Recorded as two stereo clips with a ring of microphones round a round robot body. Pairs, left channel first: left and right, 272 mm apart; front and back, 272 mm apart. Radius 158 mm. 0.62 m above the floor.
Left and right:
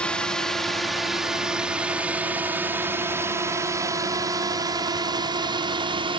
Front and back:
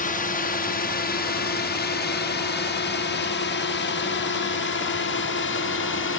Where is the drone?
5° left; by 6.2 s 25° right.